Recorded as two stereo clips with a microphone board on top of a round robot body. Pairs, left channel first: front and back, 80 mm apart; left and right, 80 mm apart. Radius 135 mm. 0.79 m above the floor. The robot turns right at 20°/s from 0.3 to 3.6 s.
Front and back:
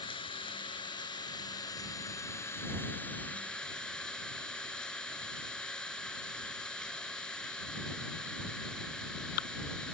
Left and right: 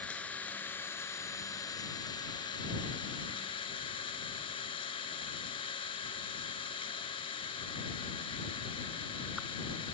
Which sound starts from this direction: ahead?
An engine running, at 0.0 s.